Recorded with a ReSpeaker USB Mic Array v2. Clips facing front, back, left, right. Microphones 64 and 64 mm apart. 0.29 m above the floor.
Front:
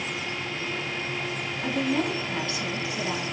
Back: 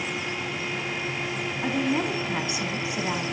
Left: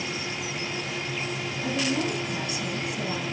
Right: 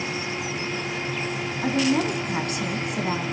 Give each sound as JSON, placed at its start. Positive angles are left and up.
{"t": 1.6, "sound": "a woman speaking", "azimuth_deg": -110, "distance_m": 3.0}